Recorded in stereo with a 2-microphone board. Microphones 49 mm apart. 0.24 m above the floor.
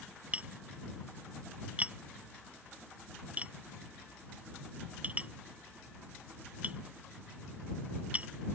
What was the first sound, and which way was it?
Tapping, 30° right (ahead or behind).